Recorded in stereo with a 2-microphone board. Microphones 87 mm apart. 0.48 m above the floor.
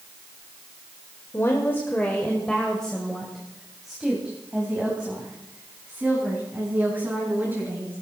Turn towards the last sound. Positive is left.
turn(degrees=-20)  # may be behind; listen again after turning